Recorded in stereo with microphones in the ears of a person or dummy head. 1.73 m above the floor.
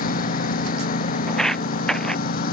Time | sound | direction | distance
0.0 | a lawn mower | 55° left (ahead or behind) | ?
1.3 | footsteps | 5° left (ahead or behind) | ?